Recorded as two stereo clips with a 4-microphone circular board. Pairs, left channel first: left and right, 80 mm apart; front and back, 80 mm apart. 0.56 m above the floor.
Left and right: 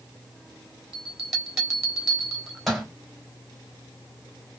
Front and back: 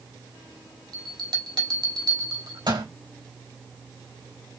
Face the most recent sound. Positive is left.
turn(degrees=-175)